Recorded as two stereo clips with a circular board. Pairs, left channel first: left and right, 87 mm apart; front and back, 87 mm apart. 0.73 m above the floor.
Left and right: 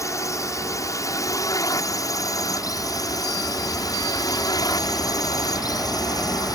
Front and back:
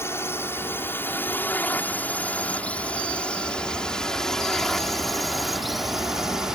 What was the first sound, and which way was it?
A drone, 55° left.